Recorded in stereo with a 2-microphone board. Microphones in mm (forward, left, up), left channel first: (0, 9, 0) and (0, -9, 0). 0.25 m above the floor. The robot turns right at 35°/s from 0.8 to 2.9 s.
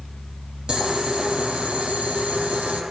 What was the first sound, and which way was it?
Boiling, 145° right.